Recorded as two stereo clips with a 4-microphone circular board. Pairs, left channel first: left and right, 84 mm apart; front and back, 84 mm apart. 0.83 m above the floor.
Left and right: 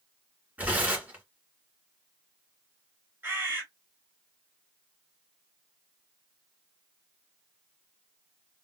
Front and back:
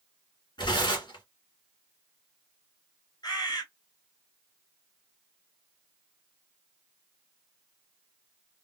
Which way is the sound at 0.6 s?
15° right.